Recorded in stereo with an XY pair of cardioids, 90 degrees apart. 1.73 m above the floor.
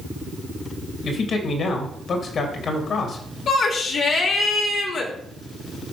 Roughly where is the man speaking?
Ahead left.